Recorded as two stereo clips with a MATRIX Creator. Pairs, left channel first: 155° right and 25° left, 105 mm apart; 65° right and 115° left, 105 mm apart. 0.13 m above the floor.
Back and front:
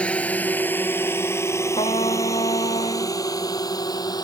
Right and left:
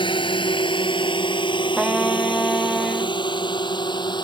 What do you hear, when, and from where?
0.0 s a drone: 80° right; by 4.2 s 110° right
1.8 s a trumpet: 160° right